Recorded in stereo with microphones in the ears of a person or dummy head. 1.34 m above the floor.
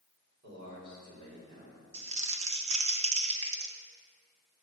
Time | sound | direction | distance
0.4 | a man speaking | 60° right (ahead or behind) | 4 m
1.9 | crumpling | 40° right (ahead or behind) | 0.8 m